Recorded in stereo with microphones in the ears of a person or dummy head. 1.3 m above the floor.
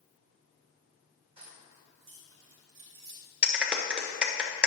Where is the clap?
5° right (ahead or behind), 0.9 m.